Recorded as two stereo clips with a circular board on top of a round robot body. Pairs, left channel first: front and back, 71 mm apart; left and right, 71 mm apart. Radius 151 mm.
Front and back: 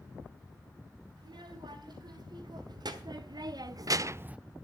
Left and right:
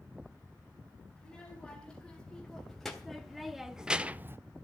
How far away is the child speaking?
About 3 m.